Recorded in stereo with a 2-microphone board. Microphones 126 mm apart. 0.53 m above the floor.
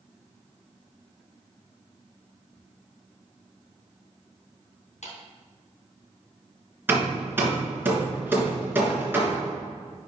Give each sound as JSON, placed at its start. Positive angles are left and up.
{"t": 5.0, "sound": "a clap", "side_deg": 70, "distance_m": 3.0}
{"t": 6.9, "sound": "hammering", "side_deg": -15, "distance_m": 3.0}